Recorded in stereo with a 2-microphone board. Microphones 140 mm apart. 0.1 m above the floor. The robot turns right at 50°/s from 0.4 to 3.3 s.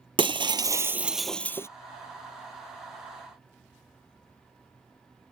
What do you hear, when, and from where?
0.2 s breaking glass: 40° right; by 1.7 s 20° left